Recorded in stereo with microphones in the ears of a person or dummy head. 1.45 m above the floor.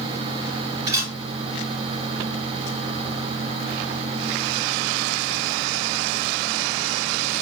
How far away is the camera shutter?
About 2 m.